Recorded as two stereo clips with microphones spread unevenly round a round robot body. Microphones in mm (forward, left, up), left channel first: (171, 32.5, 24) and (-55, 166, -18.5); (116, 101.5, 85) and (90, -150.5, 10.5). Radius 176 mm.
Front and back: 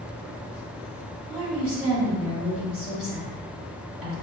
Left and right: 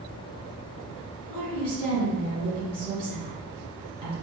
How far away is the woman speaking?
About 1.9 m.